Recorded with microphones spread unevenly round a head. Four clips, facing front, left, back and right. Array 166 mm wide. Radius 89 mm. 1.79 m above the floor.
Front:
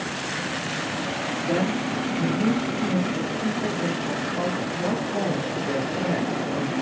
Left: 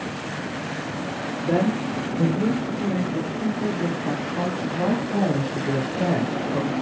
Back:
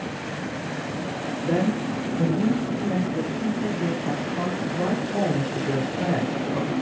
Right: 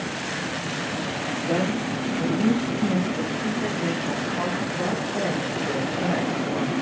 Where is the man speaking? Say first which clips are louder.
Left 3 dB, back 2 dB; 100° left, 6 m.